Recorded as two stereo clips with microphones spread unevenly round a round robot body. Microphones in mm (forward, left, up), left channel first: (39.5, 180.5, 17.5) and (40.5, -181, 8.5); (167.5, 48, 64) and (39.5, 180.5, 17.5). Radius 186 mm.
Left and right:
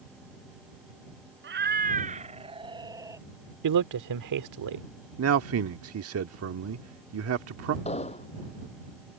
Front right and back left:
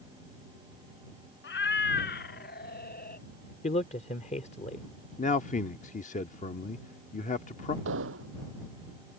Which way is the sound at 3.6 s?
115° right.